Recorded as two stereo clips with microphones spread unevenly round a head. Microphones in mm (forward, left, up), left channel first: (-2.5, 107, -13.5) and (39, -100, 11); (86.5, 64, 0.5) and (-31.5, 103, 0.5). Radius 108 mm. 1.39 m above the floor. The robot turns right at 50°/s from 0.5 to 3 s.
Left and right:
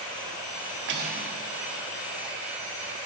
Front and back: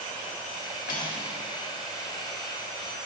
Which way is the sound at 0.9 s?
50° right.